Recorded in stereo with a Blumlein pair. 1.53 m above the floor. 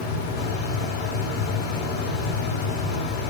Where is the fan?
45° left, 0.9 m.